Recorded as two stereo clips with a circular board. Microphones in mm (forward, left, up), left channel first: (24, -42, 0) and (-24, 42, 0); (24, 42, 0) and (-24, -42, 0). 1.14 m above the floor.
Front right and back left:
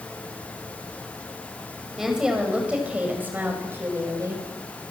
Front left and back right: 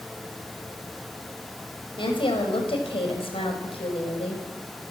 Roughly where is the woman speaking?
Ahead left.